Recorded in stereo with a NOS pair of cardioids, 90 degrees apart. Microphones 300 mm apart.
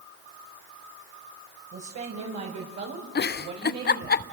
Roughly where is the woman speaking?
Ahead right.